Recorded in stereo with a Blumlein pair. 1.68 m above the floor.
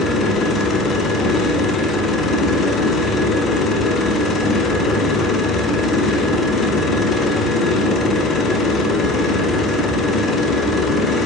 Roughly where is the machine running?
Ahead.